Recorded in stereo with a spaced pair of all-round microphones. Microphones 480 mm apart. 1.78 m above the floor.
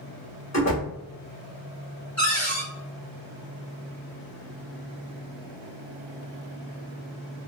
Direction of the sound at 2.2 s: 35° left (ahead or behind).